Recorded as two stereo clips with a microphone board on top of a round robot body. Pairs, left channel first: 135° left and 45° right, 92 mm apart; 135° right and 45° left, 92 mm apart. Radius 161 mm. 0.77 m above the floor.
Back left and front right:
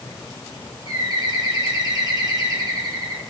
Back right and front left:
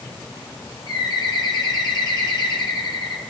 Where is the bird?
90° right, 1.5 m.